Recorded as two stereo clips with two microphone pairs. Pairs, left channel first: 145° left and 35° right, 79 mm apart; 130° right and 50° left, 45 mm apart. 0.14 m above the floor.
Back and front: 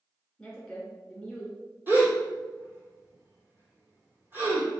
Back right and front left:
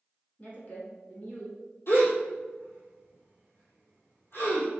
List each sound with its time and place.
0.4 s a woman speaking: 135° right, 1.7 m
1.9 s a gasp: 95° right, 1.6 m